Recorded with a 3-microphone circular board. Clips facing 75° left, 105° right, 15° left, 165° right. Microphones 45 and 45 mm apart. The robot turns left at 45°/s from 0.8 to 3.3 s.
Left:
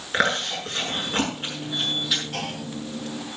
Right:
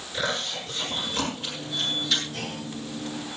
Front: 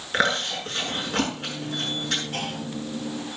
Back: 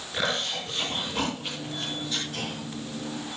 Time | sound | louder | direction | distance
0.1 | chewing | left 6 dB, front 5 dB | 55° left | 7.5 m
2.3 | a clunk | left 3 dB, front 3 dB | 55° left | 5 m